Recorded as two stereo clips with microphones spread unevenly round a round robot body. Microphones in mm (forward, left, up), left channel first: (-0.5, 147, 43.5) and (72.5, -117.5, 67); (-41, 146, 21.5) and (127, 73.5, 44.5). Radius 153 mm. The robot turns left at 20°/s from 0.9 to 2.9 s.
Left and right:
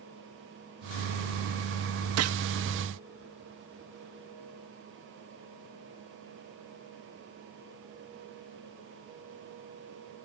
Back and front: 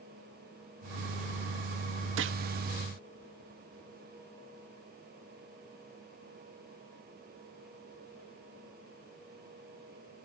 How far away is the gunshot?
About 0.9 m.